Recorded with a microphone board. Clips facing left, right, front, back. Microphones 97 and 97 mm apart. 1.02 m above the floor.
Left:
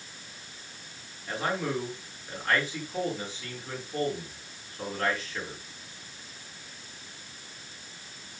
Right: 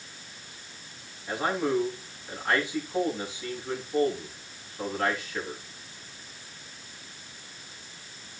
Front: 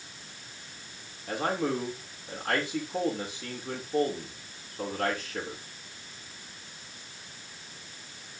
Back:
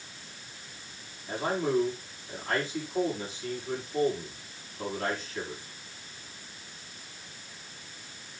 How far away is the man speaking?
About 7.5 m.